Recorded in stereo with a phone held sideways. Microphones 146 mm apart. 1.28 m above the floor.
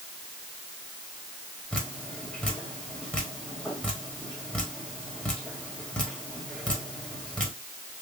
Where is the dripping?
10° left (ahead or behind), 1.1 m.